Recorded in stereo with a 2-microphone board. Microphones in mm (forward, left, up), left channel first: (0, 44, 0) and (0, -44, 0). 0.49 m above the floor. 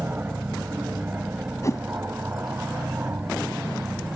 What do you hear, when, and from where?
0.0 s an aircraft: 25° right (ahead or behind)
1.6 s a whoosh: 40° left (ahead or behind)